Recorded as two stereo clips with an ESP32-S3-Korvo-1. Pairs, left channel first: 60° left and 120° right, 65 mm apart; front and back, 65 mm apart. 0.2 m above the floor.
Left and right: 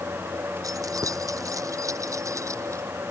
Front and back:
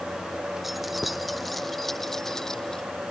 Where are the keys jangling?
95° right; by 2.8 s 80° right.